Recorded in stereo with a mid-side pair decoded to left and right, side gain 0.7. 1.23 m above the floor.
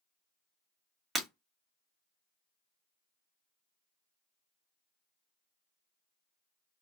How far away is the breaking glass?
About 1.3 m.